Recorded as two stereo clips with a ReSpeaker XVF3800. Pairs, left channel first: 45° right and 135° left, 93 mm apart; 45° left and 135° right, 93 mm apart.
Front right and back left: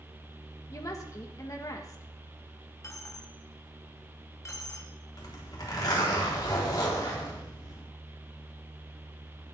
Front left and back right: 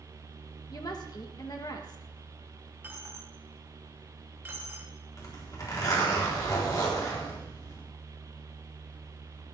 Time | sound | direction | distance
0.7 | a woman speaking | 5° left | 1.6 m
2.8 | a dropped coin | 75° right | 1.4 m
5.2 | a zipper | straight ahead | 4 m